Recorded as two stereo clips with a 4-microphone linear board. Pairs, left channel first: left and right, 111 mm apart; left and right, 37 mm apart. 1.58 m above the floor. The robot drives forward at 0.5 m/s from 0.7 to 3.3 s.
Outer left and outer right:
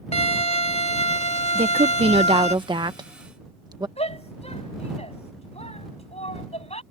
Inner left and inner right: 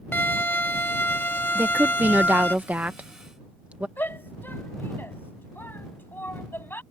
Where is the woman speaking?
65° right (ahead or behind); by 3.9 s 35° right (ahead or behind).